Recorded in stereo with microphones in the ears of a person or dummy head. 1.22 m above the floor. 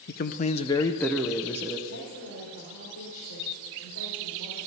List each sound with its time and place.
0.1 s a man speaking: 45° left (ahead or behind), 0.5 m; by 1.8 s 10° right (ahead or behind), 0.8 m
1.9 s a woman speaking: 85° left, 5 m